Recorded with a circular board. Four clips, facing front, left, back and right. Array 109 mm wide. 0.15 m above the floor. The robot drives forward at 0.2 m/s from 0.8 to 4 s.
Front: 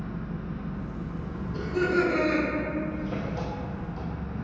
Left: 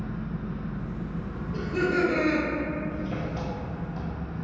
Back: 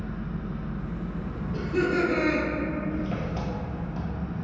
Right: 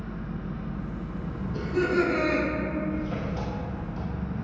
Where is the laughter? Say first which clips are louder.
Right 1 dB, even; 155° left, 1.5 m; by 2.5 s 160° left, 1.6 m.